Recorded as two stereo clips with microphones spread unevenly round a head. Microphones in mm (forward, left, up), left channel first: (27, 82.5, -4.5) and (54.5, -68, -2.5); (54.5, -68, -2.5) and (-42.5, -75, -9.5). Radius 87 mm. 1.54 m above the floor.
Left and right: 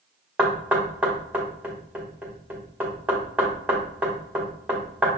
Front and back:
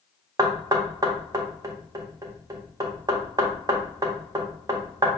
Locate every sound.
0.4 s knocking: 155° right, 0.8 m